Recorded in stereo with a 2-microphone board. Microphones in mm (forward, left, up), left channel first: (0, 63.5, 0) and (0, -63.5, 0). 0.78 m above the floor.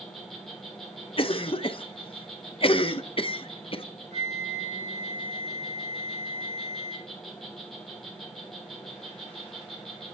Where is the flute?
60° right (ahead or behind), 4.5 m.